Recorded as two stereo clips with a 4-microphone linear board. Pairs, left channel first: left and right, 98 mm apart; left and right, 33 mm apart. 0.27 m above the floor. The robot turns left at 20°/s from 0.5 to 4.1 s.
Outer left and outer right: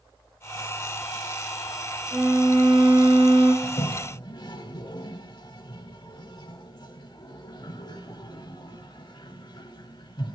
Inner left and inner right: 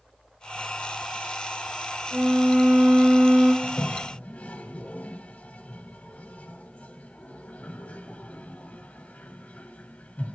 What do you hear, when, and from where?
2.1 s a violin: 45° right (ahead or behind), 3 m; by 3.5 s 75° right (ahead or behind), 3 m
3.6 s a toilet flushing: 50° left (ahead or behind), 0.6 m